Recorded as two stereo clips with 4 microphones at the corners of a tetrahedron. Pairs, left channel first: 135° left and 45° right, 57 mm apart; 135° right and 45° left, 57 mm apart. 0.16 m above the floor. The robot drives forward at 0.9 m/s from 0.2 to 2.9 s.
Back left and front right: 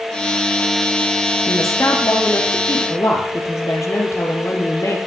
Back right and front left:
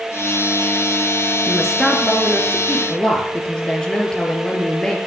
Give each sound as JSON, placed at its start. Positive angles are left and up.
{"t": 1.5, "sound": "a woman speaking", "azimuth_deg": 135, "distance_m": 3.0}